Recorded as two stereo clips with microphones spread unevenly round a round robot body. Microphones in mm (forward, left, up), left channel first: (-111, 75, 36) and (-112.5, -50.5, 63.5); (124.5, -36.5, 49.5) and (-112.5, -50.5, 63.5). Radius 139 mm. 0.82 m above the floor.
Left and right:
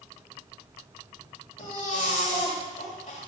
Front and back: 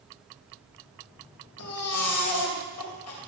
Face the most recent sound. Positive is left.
turn(degrees=25)